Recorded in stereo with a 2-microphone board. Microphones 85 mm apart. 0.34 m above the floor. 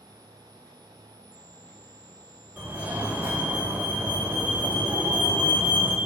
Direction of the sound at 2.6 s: 20° right (ahead or behind).